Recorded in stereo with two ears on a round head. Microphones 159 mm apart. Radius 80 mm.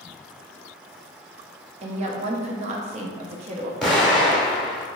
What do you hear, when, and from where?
1.8 s a woman speaking: 40° right (ahead or behind), 0.5 m
3.8 s an explosion: 5° left (ahead or behind), 0.9 m